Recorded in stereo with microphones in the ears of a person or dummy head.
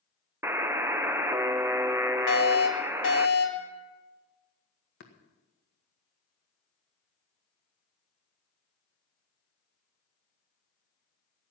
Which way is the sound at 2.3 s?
65° left (ahead or behind).